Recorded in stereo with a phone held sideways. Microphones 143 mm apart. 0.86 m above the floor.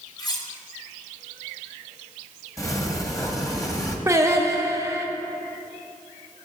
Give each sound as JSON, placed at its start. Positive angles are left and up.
{"t": 0.2, "sound": "cutlery clinking", "side_deg": 25, "distance_m": 1.0}
{"t": 2.6, "sound": "a sliding door", "side_deg": 20, "distance_m": 1.1}
{"t": 4.1, "sound": "singing", "side_deg": -20, "distance_m": 0.7}